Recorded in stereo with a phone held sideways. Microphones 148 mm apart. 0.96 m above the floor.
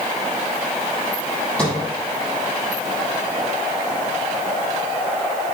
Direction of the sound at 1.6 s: 10° left (ahead or behind).